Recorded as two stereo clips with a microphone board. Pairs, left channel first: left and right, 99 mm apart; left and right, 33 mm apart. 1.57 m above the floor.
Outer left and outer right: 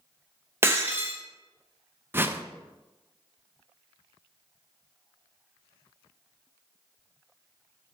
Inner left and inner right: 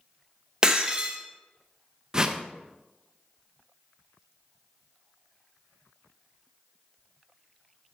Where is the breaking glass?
25° right (ahead or behind), 0.9 m.